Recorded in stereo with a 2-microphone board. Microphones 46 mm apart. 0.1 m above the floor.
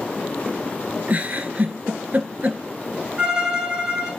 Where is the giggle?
30° right (ahead or behind), 1.9 m.